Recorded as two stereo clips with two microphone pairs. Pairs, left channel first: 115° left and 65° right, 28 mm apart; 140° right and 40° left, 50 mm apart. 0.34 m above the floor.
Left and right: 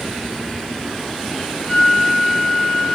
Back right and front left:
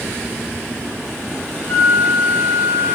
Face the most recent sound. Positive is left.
turn(degrees=180)